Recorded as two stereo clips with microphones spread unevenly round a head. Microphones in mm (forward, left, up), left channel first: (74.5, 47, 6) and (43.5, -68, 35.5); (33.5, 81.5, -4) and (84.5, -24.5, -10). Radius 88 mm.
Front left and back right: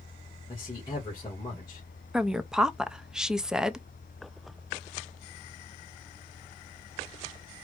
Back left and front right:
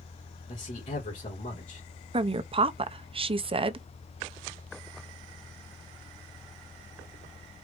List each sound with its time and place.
0.5 s a man speaking: 145° left, 2 m
2.1 s a woman speaking: 30° right, 0.8 m